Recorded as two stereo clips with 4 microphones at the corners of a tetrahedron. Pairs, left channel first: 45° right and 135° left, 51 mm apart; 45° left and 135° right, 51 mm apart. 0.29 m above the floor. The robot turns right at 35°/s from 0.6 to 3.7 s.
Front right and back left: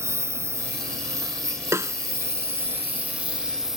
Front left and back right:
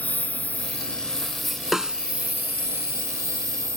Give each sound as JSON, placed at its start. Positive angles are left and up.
{"t": 0.0, "sound": "a lawn mower", "azimuth_deg": 105}
{"t": 1.7, "sound": "a snare drum", "azimuth_deg": 145}